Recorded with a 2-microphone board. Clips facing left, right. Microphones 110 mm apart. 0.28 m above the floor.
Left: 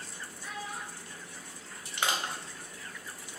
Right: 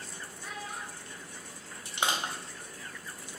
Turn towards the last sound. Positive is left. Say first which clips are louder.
# right 1 dB
turn(degrees=-20)  # may be behind; listen again after turning